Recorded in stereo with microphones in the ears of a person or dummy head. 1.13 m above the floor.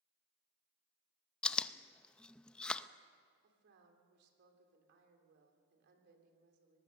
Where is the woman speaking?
65° right (ahead or behind), 3.5 m.